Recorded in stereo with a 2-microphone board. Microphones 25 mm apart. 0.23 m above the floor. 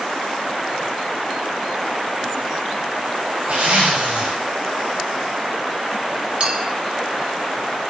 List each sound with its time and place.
3.5 s a zipper: 65° right (ahead or behind), 5.5 m
6.4 s a clink: 40° right (ahead or behind), 1.2 m